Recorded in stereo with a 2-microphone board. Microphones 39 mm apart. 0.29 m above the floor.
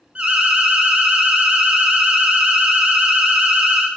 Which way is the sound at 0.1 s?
20° right (ahead or behind).